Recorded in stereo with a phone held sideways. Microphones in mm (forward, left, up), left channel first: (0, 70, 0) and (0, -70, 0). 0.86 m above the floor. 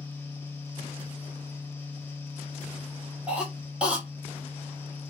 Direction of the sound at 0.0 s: 15° left (ahead or behind).